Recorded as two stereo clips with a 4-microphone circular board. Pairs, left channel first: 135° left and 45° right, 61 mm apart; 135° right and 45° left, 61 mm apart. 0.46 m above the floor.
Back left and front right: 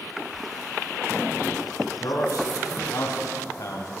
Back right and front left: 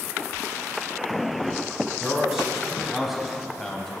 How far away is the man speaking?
About 3 m.